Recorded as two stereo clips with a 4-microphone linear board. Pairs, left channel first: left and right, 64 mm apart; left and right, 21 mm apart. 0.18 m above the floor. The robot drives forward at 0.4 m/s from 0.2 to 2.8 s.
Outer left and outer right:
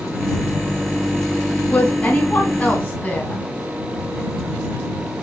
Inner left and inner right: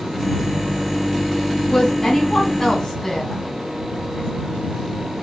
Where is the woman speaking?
20° left (ahead or behind), 1.6 m; by 3.4 s 25° left (ahead or behind), 1.5 m.